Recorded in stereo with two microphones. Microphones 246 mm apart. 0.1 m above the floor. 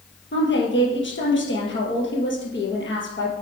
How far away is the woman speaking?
About 2 m.